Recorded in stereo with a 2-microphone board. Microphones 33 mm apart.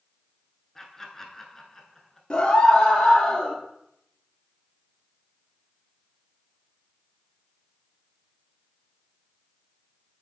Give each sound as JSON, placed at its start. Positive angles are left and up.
{"t": 0.8, "sound": "laughter", "side_deg": 15, "distance_m": 1.1}
{"t": 2.3, "sound": "a scream", "side_deg": 25, "distance_m": 1.7}